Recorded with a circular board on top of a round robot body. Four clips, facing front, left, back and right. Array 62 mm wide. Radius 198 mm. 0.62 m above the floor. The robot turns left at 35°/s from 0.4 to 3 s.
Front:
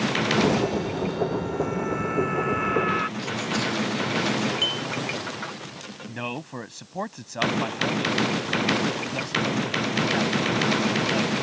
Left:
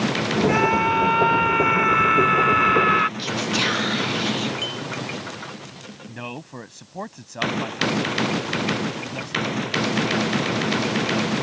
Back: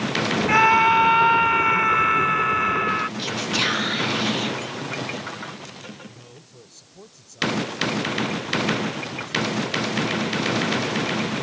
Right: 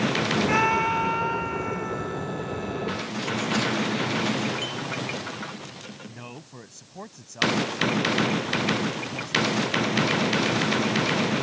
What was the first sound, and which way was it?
A scream, 175° right.